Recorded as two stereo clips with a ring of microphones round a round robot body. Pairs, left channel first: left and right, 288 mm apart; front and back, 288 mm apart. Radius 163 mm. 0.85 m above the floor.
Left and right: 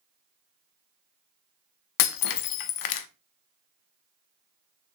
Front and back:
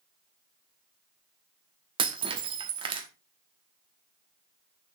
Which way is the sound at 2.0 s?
105° left.